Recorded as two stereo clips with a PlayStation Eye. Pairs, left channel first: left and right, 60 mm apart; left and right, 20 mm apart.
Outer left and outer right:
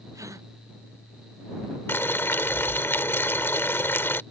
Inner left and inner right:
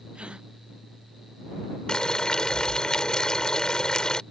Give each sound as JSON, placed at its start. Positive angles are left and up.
{"t": 0.1, "sound": "a gasp", "side_deg": -60}
{"t": 1.9, "sound": "boiling", "side_deg": 40}